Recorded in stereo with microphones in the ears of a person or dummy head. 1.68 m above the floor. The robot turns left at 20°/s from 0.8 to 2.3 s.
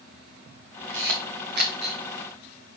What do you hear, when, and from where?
0.9 s a camera shutter: 65° right (ahead or behind), 1.1 m; by 2.0 s 50° right (ahead or behind), 1.1 m